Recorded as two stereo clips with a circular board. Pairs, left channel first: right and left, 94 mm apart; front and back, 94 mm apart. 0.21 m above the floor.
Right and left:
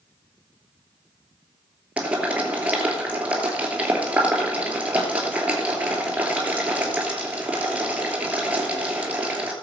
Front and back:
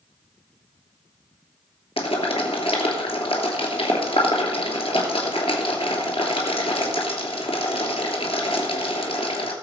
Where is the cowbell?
No cowbell in this recording.